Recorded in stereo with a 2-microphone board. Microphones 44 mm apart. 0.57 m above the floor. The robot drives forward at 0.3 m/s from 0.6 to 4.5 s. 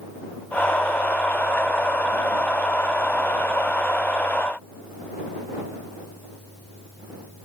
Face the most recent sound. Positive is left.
No sound to turn to.